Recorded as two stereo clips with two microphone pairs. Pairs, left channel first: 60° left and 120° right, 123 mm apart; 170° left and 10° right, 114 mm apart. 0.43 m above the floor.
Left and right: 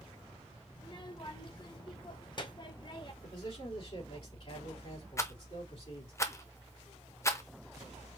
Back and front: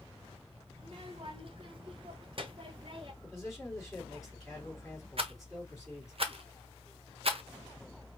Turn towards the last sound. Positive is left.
turn(degrees=0)